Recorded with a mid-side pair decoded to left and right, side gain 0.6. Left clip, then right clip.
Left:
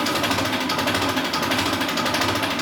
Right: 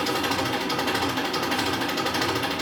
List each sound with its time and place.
0.0 s an engine running: 45° left, 3 m